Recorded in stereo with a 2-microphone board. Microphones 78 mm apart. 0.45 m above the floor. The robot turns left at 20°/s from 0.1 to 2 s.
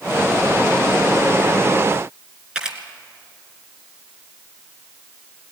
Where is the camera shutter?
10° right (ahead or behind), 2.5 m.